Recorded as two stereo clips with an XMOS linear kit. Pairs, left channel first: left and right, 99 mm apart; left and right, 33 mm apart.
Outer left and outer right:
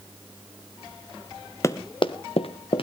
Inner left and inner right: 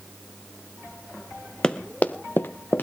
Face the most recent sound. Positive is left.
turn(degrees=65)  # may be behind; listen again after turning